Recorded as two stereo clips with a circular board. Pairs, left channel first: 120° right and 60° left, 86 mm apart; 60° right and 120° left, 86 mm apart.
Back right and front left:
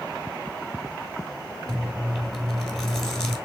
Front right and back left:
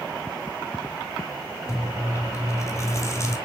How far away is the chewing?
About 1.2 m.